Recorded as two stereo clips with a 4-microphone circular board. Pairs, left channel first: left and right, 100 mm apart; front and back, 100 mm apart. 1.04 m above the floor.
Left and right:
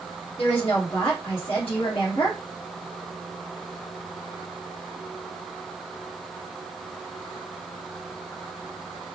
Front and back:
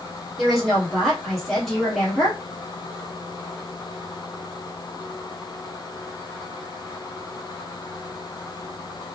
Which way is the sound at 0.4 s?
90° left.